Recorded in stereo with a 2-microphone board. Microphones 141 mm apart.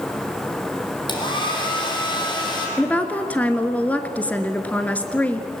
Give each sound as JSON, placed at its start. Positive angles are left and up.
{"t": 1.1, "sound": "a hair dryer", "side_deg": 30, "distance_m": 4.5}
{"t": 2.8, "sound": "a woman speaking", "side_deg": 10, "distance_m": 1.3}